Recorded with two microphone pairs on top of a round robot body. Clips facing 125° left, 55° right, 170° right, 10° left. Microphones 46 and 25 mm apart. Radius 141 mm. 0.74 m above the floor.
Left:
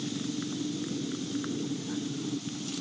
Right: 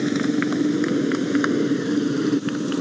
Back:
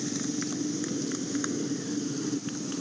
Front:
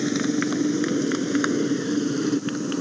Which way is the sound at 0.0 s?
40° right.